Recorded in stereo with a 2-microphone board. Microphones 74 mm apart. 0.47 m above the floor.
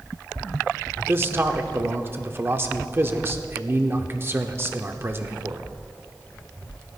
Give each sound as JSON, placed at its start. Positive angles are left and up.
{"t": 1.0, "sound": "a man speaking", "side_deg": -30, "distance_m": 0.8}